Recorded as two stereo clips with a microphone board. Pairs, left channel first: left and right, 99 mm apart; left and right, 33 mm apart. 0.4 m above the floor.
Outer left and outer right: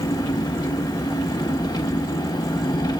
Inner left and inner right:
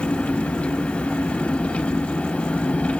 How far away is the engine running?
About 1.3 m.